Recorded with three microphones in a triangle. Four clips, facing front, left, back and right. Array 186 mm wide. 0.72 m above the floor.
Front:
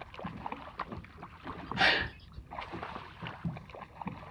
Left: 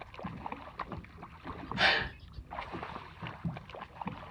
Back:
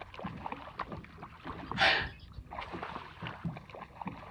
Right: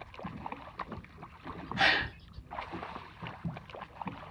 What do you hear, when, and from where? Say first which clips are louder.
1.8 s a gasp: right 1 dB, even; 15° right, 1.4 m